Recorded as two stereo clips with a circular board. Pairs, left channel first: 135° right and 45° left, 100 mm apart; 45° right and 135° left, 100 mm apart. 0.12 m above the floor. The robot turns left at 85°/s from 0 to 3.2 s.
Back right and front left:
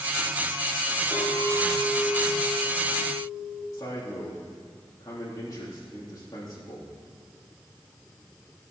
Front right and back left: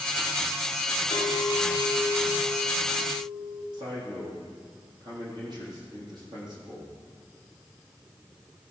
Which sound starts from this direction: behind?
A man speaking, at 3.7 s.